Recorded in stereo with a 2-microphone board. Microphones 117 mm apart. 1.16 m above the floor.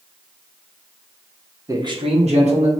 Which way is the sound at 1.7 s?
25° right (ahead or behind).